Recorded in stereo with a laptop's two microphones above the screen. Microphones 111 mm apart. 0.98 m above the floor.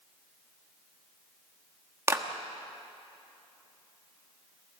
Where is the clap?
25° right (ahead or behind), 1.3 m.